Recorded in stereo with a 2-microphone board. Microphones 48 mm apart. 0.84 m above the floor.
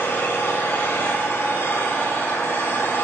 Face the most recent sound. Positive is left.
turn(degrees=55)  # may be behind; listen again after turning